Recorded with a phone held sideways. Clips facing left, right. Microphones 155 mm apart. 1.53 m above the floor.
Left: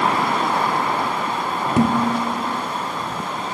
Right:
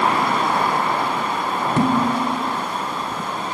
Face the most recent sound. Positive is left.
turn(degrees=15)  # may be behind; listen again after turning